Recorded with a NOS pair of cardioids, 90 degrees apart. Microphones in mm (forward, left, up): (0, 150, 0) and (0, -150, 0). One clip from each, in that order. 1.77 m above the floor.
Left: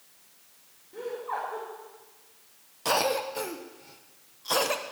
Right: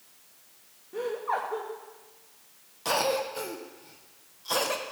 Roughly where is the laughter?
Ahead right.